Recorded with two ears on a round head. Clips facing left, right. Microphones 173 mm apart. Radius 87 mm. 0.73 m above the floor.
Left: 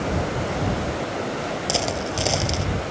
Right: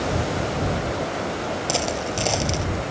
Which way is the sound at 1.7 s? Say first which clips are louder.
Left 1 dB; 5° left (ahead or behind).